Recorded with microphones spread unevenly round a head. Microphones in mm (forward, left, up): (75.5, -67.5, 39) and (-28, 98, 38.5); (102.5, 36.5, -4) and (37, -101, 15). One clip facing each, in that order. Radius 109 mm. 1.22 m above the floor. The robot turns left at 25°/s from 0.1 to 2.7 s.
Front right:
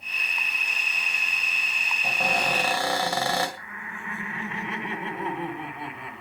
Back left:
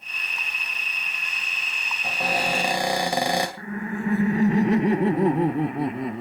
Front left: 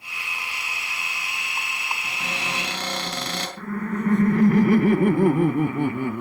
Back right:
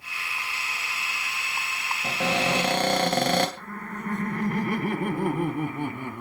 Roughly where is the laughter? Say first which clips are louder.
Back left 14 dB, front left 9 dB; left.